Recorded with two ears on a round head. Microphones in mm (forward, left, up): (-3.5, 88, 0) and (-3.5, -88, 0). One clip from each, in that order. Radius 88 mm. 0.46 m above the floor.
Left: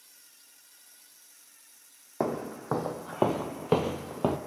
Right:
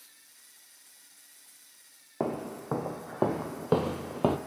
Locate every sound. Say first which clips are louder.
2.2 s footsteps: left 2 dB; 70° left (ahead or behind), 1.0 m; by 4.4 s 10° right (ahead or behind), 0.6 m